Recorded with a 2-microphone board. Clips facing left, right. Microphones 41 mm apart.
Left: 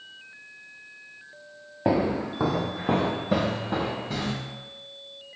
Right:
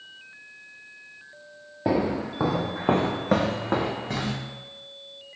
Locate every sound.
1.9 s footsteps: 15° left (ahead or behind), 0.8 m; by 4.3 s 80° right, 1.1 m